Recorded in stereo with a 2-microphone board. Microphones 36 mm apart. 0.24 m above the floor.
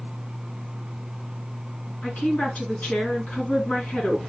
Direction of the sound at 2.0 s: 50° left (ahead or behind).